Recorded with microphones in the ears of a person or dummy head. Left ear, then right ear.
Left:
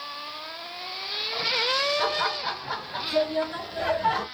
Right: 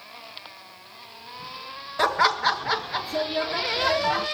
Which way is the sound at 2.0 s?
75° right (ahead or behind).